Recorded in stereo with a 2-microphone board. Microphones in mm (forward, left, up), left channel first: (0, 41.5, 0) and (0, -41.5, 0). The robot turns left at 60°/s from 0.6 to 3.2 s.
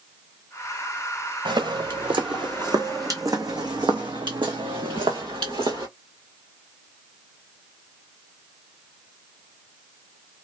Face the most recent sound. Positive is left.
turn(degrees=-75)  # may be behind; listen again after turning